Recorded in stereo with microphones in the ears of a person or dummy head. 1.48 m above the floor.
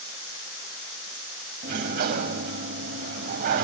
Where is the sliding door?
45° right (ahead or behind), 2.5 m.